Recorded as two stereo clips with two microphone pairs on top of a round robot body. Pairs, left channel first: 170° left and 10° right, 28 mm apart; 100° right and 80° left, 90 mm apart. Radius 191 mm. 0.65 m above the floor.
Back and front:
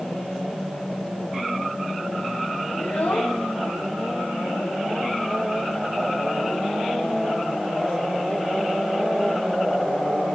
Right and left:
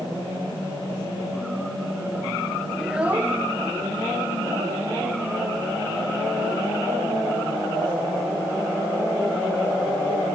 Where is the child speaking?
175° left, 0.6 m; by 10.3 s 100° left, 4.5 m.